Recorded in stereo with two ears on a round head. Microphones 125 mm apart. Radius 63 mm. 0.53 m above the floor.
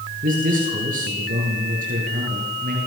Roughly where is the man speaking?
Right.